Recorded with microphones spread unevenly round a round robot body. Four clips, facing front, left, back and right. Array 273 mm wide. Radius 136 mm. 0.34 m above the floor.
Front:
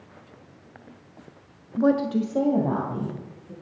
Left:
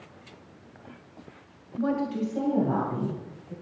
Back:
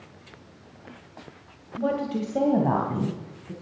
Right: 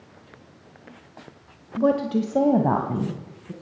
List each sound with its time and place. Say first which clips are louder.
1.8 s a woman speaking: right 6 dB, front 5 dB; 60° right, 1.4 m; by 3.5 s 110° right, 3.5 m